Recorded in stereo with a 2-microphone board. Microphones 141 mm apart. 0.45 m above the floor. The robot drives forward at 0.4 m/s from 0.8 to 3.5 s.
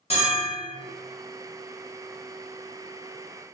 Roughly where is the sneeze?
No sneeze in this recording.